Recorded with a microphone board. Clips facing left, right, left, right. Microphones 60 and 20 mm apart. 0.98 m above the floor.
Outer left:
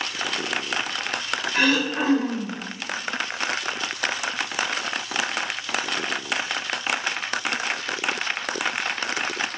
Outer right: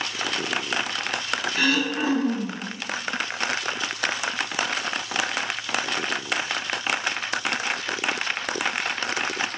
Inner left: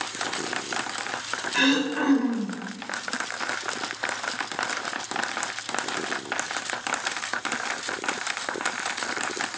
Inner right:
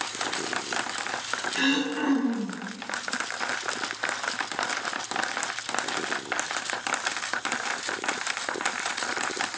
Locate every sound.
1.5 s throat clearing: 65° left (ahead or behind), 1.9 m